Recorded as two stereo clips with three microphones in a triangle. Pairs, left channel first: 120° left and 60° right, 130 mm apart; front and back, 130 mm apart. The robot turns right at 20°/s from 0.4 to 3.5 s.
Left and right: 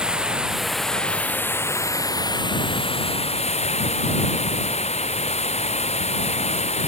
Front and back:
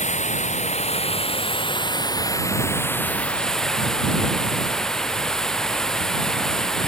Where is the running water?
25° left; by 6.9 s 85° left.